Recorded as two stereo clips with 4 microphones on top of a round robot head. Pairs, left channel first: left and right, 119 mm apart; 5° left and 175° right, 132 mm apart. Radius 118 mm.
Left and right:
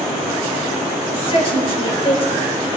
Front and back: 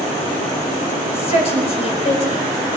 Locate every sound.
1.1 s a woman speaking: 50° left, 5 m